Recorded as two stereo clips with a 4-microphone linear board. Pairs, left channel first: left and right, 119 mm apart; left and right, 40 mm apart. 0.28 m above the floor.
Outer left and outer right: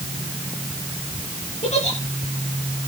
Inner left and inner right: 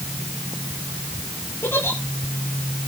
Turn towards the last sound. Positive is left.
turn(degrees=80)